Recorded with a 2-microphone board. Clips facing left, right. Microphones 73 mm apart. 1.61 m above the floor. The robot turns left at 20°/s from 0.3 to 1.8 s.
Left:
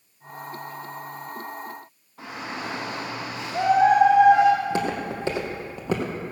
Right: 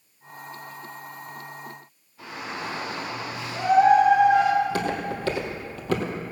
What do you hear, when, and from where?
2.2 s a shout: 75° left (ahead or behind), 3.5 m
4.5 s footsteps: 20° left (ahead or behind), 2.5 m; by 6.1 s 15° left (ahead or behind), 2.0 m